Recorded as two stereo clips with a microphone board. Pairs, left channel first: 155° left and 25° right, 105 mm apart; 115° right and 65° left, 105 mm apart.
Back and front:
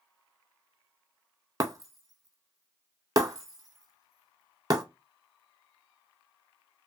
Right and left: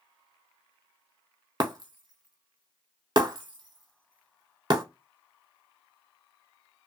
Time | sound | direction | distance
1.6 | breaking glass | 25° left | 0.5 m